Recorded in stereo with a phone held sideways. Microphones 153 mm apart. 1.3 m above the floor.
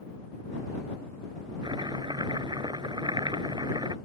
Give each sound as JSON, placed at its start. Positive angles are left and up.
{"t": 1.6, "sound": "chopping", "side_deg": -30}